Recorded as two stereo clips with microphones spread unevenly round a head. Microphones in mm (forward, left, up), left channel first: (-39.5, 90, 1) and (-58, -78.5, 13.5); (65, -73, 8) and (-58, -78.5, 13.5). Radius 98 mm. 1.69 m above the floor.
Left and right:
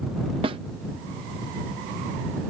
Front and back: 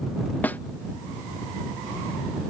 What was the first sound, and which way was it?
A snare drum, 70° right.